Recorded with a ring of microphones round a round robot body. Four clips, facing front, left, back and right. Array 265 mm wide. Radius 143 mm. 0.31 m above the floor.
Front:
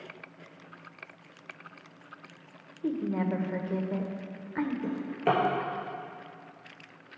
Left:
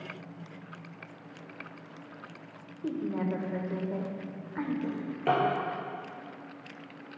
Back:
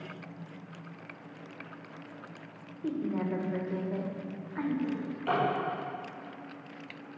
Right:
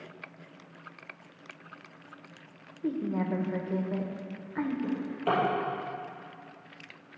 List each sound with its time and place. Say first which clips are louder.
2.8 s a woman speaking: right 1 dB, front 2 dB; 10° right, 1.3 m
4.8 s a drawer: left 1 dB, front 4 dB; 20° left, 3.5 m